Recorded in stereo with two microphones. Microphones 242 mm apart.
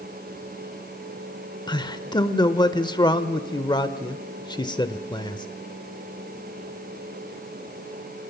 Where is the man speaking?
20° left (ahead or behind), 1.0 m.